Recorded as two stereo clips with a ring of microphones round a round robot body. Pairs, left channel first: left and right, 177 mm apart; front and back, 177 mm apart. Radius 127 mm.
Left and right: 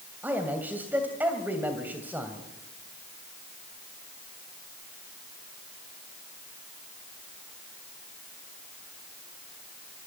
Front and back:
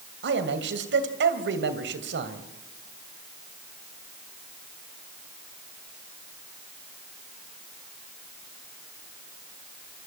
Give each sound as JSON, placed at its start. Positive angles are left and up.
{"t": 0.2, "sound": "a man speaking", "azimuth_deg": -170, "distance_m": 2.5}